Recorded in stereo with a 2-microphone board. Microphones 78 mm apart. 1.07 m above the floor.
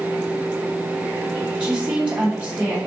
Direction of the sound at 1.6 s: 20° right (ahead or behind).